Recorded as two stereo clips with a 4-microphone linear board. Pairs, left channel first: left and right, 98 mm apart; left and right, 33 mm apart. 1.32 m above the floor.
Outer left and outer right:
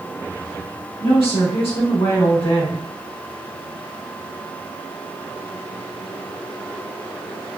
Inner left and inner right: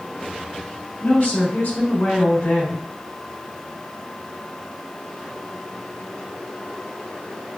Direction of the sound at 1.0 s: 75° left (ahead or behind).